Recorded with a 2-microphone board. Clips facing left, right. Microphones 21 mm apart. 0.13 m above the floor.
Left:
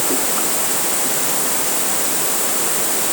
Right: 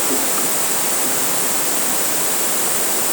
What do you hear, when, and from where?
Only background noise.